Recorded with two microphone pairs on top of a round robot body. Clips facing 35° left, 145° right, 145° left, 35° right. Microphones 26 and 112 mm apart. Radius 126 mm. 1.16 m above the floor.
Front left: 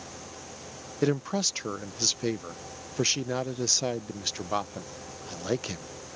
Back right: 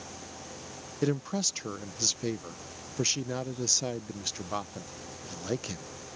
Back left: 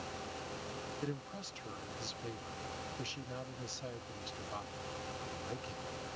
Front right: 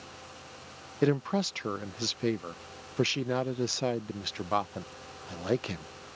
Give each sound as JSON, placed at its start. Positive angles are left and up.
{"t": 1.0, "sound": "a man speaking", "azimuth_deg": -40}